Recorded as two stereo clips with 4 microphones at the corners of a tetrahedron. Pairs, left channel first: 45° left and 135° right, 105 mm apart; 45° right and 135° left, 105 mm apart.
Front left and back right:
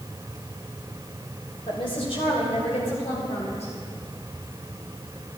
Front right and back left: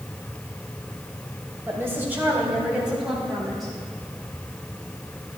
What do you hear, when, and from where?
1.7 s a woman speaking: 75° left, 2.5 m; by 3.7 s 45° left, 4 m